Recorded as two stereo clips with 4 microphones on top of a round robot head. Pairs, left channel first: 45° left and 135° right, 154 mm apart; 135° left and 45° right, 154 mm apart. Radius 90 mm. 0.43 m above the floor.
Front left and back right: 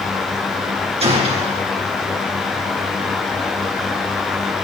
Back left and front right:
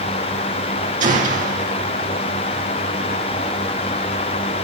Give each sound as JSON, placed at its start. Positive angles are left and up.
{"t": 1.0, "sound": "a gunshot", "azimuth_deg": -85, "distance_m": 3.0}